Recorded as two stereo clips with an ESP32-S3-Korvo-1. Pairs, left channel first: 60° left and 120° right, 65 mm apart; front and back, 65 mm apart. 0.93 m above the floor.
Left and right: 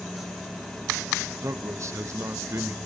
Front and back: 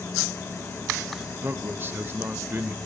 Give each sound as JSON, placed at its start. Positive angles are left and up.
{"t": 1.4, "sound": "a man speaking", "azimuth_deg": -135, "distance_m": 1.0}